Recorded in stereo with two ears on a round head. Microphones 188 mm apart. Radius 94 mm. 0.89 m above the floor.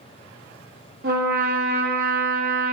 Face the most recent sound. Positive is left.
turn(degrees=-45)  # may be behind; listen again after turning